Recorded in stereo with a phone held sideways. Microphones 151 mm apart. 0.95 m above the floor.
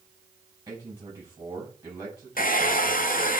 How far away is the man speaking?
About 4.5 m.